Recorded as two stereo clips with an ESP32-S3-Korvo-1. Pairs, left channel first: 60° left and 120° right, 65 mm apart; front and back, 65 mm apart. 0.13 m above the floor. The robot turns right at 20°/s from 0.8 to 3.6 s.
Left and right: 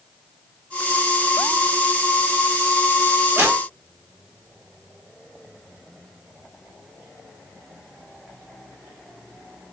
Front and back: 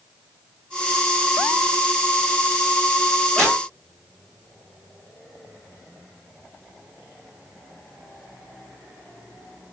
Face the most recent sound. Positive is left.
turn(degrees=-70)